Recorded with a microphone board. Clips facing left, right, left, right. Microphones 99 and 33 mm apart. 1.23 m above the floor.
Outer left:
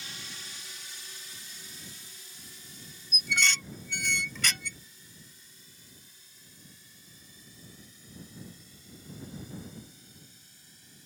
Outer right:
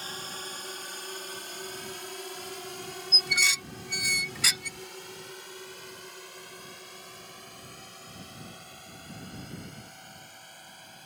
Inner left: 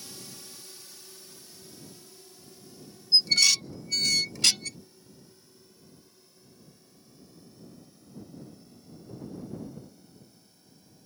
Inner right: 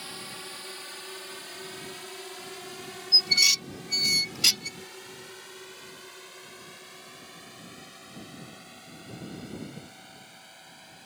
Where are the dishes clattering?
10° right (ahead or behind).